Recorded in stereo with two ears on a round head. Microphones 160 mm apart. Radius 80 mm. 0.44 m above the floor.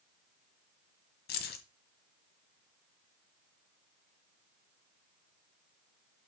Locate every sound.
1.3 s keys jangling: 60° left (ahead or behind), 1.9 m